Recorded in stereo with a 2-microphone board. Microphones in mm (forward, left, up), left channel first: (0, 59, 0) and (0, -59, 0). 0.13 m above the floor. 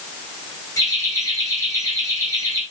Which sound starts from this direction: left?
Laughter, at 0.8 s.